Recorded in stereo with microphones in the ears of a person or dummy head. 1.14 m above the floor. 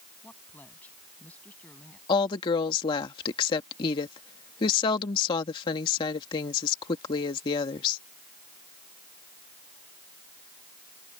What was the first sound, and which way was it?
A woman speaking, 10° left (ahead or behind).